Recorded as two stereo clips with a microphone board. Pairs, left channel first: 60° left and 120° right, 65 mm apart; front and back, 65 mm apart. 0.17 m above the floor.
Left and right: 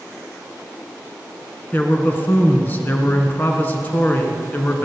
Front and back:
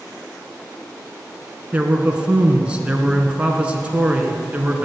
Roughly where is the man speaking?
Behind left.